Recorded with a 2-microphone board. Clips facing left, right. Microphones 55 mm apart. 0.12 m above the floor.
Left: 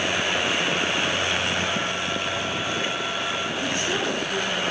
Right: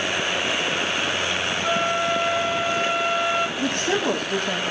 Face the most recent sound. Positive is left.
turn(degrees=-50)  # may be behind; listen again after turning